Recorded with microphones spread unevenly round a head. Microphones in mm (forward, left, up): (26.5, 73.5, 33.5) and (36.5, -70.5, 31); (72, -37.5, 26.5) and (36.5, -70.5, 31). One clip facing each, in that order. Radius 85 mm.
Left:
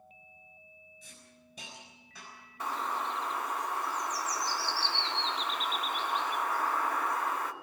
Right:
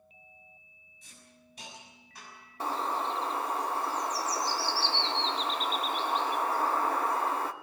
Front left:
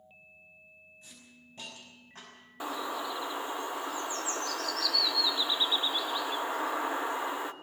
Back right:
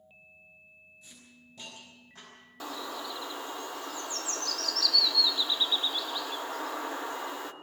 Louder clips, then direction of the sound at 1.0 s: Left 1 dB, even; 120° left.